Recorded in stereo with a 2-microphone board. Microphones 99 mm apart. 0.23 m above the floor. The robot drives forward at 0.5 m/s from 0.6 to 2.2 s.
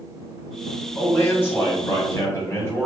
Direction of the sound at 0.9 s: 25° left (ahead or behind).